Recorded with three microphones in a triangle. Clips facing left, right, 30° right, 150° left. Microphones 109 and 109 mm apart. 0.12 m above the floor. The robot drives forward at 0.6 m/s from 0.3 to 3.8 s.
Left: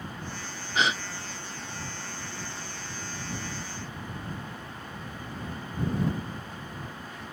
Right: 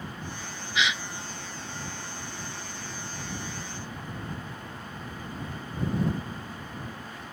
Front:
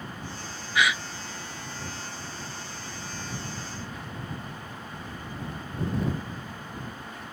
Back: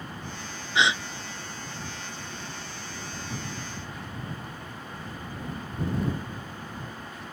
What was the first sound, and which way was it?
A gasp, 100° left.